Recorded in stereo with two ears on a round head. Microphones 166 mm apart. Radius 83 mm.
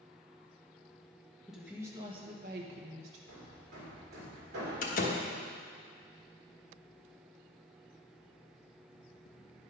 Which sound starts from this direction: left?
A door slam, at 4.8 s.